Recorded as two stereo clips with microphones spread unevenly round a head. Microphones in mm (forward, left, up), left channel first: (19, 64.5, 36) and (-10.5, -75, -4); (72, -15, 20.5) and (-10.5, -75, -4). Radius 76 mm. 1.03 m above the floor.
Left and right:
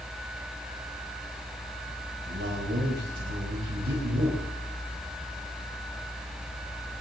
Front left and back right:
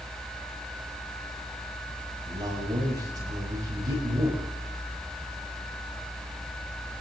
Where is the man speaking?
90° right, 5.5 m.